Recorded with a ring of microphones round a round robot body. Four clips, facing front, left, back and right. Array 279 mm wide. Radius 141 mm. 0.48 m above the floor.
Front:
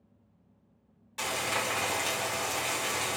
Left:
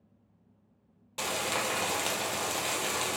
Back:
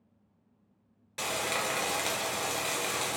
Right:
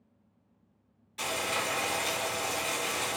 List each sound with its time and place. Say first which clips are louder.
1.2 s frying: even, even; 120° left, 1.0 m